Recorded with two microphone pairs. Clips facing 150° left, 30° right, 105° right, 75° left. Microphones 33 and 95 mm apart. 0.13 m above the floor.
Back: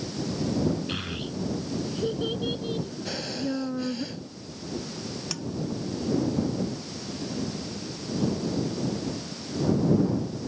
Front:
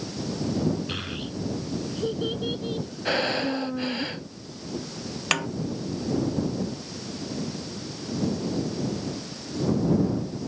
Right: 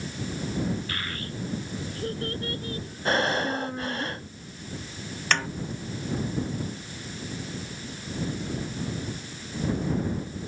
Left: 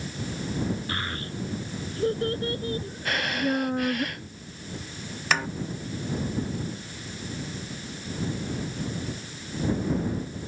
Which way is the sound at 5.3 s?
10° right.